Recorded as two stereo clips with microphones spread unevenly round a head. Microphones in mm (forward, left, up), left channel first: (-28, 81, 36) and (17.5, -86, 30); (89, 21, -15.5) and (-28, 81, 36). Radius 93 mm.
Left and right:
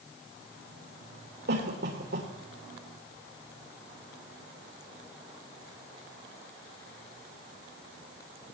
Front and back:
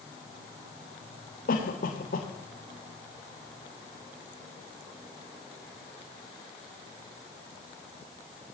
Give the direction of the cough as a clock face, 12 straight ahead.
2 o'clock.